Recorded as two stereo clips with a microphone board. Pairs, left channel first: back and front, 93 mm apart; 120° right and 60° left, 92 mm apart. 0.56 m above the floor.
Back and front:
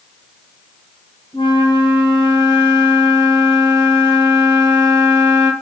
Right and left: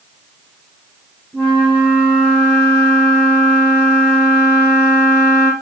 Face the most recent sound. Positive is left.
turn(degrees=160)